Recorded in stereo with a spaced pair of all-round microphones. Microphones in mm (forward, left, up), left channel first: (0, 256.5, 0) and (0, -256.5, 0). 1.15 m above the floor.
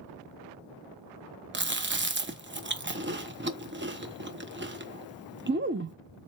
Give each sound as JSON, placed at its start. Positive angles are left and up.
{"t": 1.5, "sound": "chewing", "side_deg": -20, "distance_m": 0.6}